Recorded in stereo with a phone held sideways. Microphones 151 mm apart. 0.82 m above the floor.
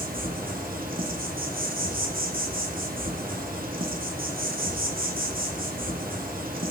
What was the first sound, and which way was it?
An insect, 70° right (ahead or behind).